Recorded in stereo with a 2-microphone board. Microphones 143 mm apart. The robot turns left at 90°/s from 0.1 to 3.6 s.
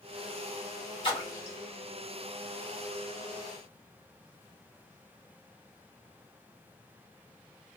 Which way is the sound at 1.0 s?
35° left (ahead or behind).